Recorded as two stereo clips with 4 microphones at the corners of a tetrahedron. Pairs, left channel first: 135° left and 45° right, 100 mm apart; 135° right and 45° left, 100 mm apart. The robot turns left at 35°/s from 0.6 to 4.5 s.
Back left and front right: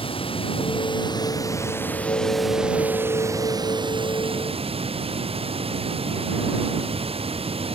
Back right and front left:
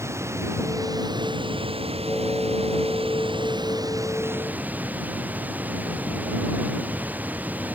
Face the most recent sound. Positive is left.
turn(degrees=-30)